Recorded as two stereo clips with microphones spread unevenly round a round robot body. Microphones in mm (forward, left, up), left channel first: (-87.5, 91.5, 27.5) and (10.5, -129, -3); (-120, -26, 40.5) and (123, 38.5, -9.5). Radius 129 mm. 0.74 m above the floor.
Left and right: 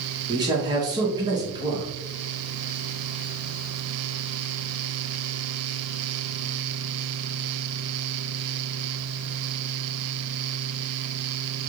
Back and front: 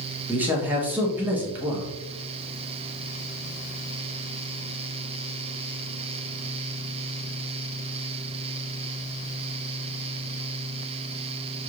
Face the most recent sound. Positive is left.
turn(degrees=-35)